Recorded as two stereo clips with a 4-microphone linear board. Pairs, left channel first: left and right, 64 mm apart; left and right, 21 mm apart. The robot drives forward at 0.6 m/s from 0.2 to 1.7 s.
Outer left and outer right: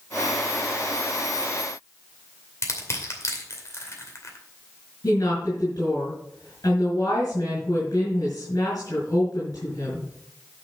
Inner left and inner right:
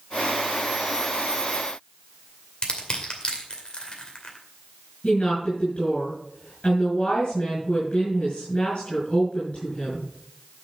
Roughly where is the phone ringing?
No phone ringing in this recording.